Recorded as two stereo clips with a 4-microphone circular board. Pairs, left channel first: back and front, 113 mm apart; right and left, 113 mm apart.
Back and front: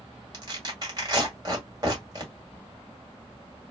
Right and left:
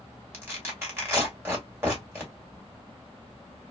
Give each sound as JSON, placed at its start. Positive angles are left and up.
{"t": 0.3, "sound": "tearing paper", "azimuth_deg": 35, "distance_m": 2.0}